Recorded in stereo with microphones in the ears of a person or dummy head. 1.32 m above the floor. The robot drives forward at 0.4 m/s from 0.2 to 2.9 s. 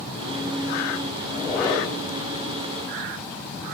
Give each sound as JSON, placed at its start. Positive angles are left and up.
{"t": 1.3, "sound": "a squeak", "side_deg": 20, "distance_m": 3.5}